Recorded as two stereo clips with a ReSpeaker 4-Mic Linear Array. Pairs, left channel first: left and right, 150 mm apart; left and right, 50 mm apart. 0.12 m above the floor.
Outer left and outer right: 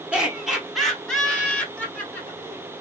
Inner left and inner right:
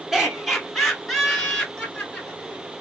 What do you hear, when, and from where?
0.1 s laughter: 10° right (ahead or behind), 1.4 m; by 2.6 s 15° left (ahead or behind), 2 m